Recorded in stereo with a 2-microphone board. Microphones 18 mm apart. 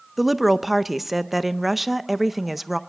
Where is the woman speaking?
10° right (ahead or behind), 0.5 m.